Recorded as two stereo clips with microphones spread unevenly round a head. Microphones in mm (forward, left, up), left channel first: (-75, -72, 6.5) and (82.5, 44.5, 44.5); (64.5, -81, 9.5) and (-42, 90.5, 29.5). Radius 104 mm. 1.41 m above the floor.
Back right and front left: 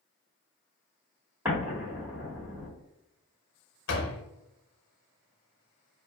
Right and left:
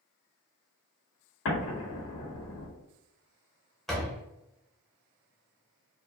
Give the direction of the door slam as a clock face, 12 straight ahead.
5 o'clock.